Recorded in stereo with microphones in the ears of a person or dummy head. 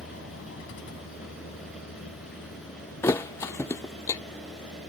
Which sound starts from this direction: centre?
A thud, at 3.0 s.